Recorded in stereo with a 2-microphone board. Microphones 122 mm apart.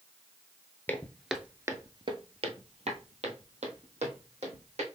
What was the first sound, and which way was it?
Footsteps, 20° left (ahead or behind).